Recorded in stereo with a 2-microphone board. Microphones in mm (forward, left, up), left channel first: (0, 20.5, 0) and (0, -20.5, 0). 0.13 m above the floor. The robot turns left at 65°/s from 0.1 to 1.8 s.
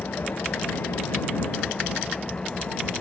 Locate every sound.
0.0 s an engine running: 130° left; by 3.0 s 20° left